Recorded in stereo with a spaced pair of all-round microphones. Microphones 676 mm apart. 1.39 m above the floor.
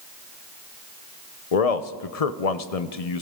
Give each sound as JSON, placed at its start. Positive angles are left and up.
{"t": 1.5, "sound": "a man speaking", "side_deg": 60, "distance_m": 0.9}